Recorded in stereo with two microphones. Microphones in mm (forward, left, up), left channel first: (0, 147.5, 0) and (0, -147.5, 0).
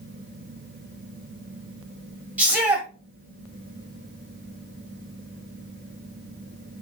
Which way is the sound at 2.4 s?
5° right (ahead or behind).